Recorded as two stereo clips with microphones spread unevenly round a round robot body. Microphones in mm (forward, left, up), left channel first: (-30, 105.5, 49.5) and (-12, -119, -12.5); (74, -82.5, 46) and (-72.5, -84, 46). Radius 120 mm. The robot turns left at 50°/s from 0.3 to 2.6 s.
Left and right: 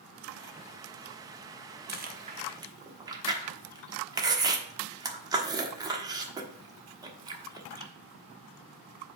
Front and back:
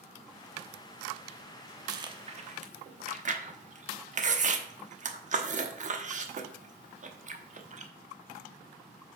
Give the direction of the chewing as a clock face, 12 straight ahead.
4 o'clock.